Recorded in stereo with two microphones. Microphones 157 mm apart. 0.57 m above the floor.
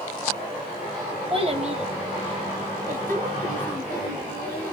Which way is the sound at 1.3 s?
35° right (ahead or behind).